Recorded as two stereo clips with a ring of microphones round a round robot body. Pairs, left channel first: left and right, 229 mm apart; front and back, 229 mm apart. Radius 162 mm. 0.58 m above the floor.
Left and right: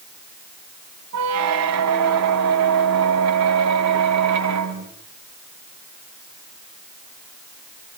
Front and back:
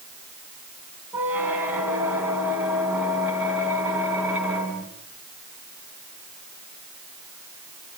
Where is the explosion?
I don't hear an explosion.